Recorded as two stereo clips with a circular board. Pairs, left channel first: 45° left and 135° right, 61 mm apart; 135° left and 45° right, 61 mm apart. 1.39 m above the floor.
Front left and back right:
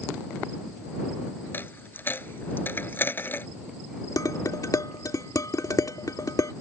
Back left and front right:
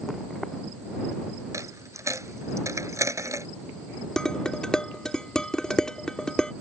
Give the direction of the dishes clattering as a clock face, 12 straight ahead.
10 o'clock.